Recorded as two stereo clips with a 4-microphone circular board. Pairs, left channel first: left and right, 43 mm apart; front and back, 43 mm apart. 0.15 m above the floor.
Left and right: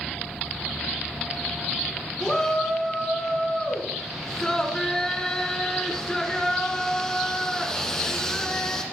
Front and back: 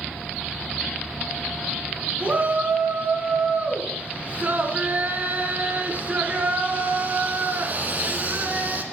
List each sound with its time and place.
2.2 s a shout: 155° left, 1.9 m